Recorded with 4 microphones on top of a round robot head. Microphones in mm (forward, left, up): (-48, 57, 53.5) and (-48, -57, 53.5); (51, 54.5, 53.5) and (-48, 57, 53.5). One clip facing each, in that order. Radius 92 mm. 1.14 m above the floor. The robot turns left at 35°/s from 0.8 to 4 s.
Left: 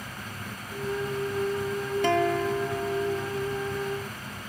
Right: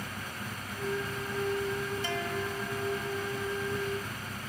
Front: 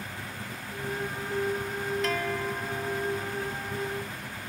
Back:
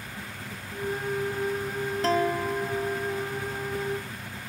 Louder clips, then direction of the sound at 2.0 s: Left 10 dB, back 5 dB; 120° left.